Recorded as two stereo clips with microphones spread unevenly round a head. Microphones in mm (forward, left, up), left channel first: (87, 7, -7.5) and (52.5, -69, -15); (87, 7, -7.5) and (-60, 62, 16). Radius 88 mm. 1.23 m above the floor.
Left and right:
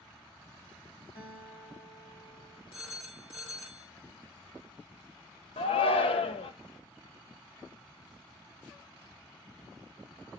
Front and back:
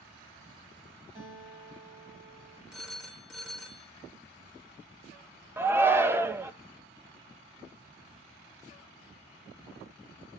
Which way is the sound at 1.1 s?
100° left.